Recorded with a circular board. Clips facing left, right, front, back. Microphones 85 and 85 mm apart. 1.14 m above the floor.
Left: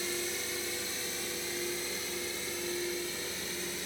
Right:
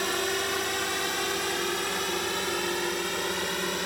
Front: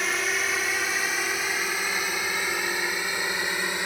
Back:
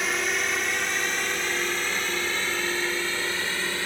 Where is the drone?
90° right; by 3.9 s 75° right.